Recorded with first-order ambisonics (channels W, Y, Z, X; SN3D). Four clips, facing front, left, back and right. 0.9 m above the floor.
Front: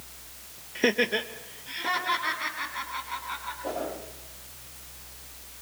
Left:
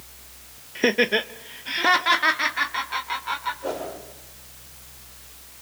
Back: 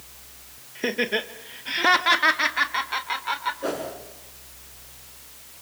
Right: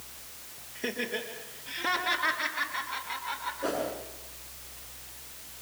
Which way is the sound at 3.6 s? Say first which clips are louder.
Left 1 dB, back 3 dB; 155° right.